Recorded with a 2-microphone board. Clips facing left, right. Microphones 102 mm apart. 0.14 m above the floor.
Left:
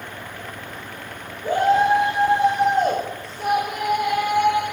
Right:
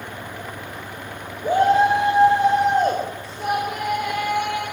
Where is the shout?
15° right (ahead or behind), 5.5 m; by 4.6 s 15° left (ahead or behind), 5 m.